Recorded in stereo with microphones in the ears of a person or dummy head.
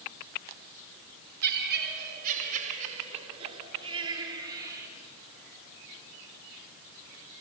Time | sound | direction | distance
1.4 | laughter | 55° right (ahead or behind) | 5 m